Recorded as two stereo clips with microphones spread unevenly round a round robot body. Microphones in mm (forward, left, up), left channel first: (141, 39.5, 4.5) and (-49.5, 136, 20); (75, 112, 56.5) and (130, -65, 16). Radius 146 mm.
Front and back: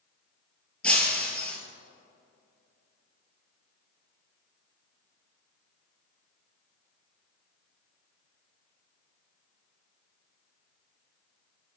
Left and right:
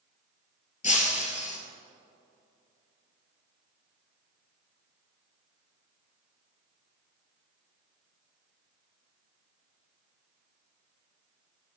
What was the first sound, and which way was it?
Breaking glass, 60° left.